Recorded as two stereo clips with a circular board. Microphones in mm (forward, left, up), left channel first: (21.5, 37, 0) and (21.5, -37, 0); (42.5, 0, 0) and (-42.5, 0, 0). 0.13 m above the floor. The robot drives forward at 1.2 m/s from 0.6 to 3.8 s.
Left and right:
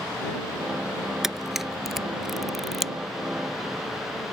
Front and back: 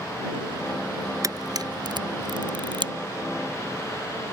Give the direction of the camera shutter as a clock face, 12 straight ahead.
6 o'clock.